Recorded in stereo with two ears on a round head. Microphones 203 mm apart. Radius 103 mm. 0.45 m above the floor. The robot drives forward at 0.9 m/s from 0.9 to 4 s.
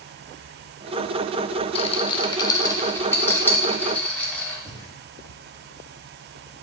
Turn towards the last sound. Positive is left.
turn(degrees=-20)  # may be behind; listen again after turning